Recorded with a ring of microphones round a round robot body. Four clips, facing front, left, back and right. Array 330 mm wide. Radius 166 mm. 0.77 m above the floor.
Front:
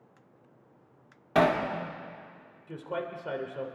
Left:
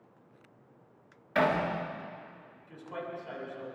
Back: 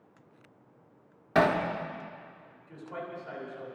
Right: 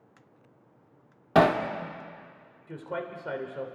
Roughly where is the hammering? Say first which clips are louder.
Right 6 dB, front 1 dB; right.